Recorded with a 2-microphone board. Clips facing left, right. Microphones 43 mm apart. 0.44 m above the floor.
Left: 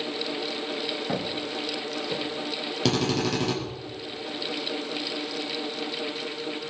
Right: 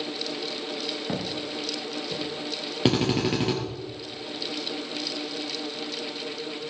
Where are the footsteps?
Centre (ahead or behind), 4.5 m; by 2.2 s 10° left (ahead or behind), 4.5 m.